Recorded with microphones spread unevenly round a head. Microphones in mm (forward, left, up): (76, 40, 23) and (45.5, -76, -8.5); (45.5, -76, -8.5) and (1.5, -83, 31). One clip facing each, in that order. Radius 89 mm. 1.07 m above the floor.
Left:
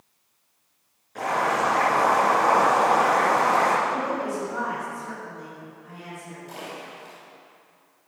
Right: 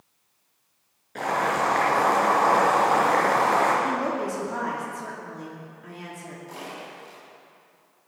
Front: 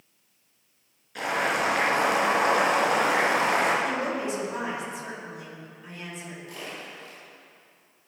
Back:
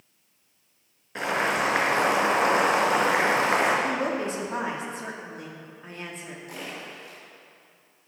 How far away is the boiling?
About 4 m.